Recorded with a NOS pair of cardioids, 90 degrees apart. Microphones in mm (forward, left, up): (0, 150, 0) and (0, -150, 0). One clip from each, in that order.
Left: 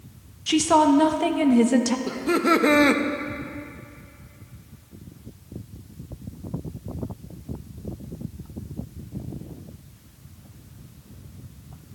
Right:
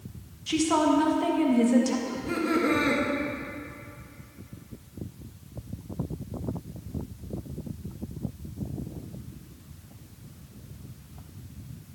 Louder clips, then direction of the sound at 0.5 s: Left 6 dB; 40° left.